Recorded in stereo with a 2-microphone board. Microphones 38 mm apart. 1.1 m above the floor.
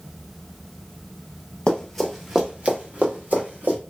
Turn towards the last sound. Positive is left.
turn(degrees=-60)  # may be behind; listen again after turning